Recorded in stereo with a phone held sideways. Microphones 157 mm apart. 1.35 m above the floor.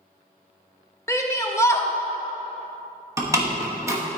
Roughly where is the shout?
Centre.